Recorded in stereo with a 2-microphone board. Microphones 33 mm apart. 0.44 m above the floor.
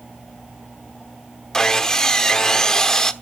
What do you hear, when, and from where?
1.5 s sawing: 20° left (ahead or behind), 1.1 m